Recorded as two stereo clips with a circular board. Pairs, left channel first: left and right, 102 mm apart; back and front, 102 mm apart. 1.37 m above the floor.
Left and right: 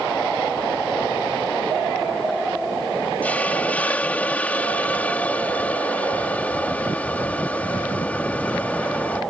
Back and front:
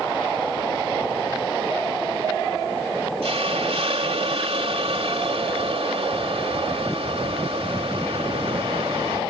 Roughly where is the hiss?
Ahead.